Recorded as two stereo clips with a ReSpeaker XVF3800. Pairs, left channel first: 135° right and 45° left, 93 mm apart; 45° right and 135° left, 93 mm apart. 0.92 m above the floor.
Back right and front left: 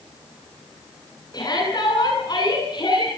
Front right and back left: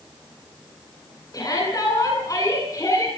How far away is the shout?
About 9 m.